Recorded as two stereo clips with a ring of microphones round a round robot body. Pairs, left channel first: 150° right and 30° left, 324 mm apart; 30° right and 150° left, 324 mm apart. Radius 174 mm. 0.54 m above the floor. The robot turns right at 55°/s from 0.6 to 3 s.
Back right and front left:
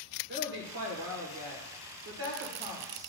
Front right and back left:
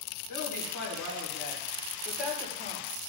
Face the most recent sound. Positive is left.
turn(degrees=110)